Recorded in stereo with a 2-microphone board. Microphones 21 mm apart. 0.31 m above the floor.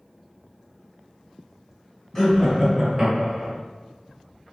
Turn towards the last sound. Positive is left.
turn(degrees=-30)  # may be behind; listen again after turning